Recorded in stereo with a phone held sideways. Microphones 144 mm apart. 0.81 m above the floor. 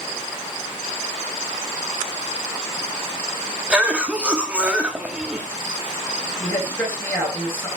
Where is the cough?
10° right (ahead or behind), 2.0 m.